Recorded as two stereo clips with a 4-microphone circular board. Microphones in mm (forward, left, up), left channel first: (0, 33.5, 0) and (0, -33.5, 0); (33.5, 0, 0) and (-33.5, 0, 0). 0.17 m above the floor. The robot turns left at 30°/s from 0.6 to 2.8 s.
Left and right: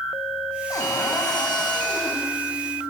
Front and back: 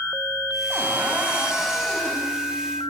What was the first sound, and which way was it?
A cupboard door, 130° left.